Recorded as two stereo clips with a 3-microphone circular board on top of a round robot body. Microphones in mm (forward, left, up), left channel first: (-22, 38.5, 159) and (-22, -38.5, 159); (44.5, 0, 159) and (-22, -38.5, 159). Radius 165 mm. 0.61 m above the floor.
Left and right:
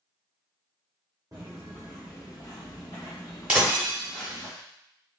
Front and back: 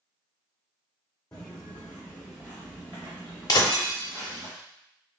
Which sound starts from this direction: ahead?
Breaking glass, at 3.5 s.